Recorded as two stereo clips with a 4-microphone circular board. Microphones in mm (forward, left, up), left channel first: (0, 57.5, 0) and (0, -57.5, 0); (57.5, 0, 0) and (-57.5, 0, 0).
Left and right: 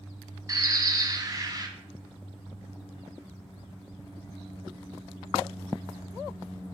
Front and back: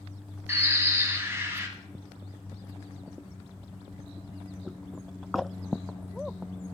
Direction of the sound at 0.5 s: 125° right.